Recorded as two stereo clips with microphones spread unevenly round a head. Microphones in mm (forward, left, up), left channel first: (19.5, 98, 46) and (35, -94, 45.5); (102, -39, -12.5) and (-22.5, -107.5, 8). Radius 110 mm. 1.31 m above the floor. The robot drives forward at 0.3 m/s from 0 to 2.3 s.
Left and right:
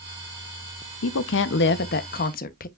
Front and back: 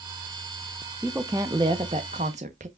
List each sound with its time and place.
1.0 s a woman speaking: 125° left, 0.5 m; by 2.7 s 145° left, 0.8 m